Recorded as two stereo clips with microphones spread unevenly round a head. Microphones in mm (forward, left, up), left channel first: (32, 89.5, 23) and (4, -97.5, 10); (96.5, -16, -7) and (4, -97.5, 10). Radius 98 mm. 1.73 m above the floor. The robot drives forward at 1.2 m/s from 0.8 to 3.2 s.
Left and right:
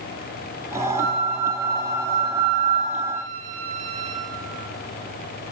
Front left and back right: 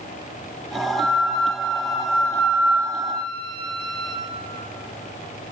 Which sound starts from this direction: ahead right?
A flute, at 0.9 s.